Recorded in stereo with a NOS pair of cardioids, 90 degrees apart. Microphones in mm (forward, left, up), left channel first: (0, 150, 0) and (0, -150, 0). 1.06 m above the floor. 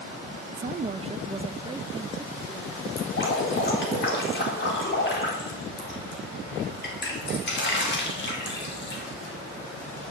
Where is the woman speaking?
30° right, 0.5 m; by 2.9 s 10° right, 1.8 m.